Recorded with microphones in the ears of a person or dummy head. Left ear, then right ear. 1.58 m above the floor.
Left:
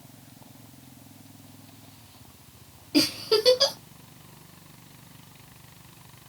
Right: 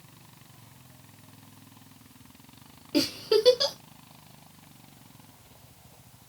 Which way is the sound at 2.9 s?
15° right (ahead or behind).